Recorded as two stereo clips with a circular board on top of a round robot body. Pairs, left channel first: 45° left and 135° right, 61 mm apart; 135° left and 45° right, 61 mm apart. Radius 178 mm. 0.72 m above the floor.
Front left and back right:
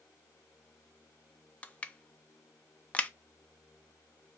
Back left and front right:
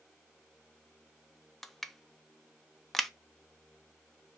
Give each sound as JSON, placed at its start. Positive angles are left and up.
{"t": 1.6, "sound": "crushing", "azimuth_deg": 55, "distance_m": 0.7}